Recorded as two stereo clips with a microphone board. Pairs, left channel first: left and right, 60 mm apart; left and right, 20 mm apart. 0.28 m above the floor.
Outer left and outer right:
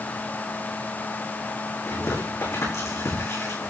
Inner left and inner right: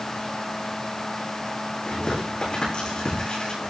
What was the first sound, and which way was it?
Tearing paper, 60° left (ahead or behind).